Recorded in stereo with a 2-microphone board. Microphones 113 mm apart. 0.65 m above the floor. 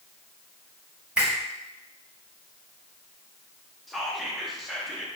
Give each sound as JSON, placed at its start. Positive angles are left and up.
{"t": 1.2, "sound": "a finger snap", "side_deg": -10, "distance_m": 1.1}
{"t": 3.9, "sound": "whispering", "side_deg": 0, "distance_m": 0.5}